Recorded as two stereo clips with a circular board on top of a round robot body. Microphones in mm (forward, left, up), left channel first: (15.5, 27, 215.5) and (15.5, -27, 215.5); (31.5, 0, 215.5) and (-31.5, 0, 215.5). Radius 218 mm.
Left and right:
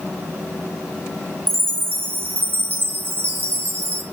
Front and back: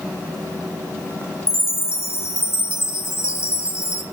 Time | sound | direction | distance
1.5 | a chime | 45° right | 3.5 m